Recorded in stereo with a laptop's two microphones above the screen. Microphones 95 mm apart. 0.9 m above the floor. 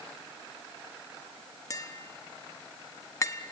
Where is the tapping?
35° left (ahead or behind), 0.9 m.